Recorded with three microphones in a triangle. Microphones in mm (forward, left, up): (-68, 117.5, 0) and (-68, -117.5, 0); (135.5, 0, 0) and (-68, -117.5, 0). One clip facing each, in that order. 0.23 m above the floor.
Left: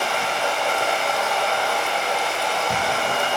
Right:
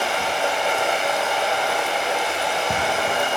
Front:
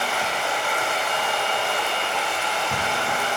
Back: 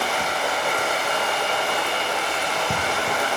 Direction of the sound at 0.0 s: 160° right.